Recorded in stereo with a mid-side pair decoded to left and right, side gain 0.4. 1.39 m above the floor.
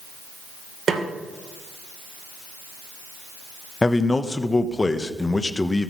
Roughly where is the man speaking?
Ahead left.